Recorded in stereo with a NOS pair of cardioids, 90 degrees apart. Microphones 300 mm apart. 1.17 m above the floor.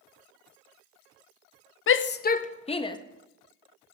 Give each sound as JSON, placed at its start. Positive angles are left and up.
{"t": 1.9, "sound": "a shout", "azimuth_deg": 45, "distance_m": 0.8}